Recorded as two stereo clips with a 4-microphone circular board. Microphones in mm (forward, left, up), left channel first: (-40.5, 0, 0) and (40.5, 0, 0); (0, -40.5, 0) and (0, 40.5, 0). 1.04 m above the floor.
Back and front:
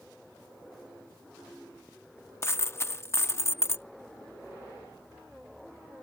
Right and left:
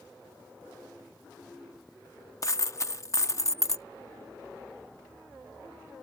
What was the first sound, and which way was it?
A dropped coin, 130° right.